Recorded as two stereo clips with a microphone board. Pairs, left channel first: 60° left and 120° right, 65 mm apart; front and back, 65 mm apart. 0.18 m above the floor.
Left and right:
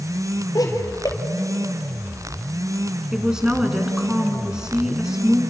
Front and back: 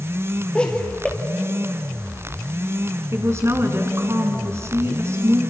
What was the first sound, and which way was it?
Laughter, 75° left.